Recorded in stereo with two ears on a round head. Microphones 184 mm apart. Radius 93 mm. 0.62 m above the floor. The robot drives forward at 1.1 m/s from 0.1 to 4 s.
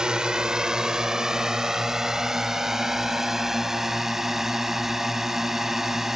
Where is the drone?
5° right (ahead or behind); by 6.2 s centre (ahead or behind).